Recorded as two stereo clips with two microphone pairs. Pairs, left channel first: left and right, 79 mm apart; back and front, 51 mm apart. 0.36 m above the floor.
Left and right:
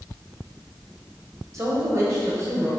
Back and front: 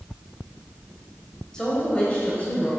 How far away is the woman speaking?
About 1.8 m.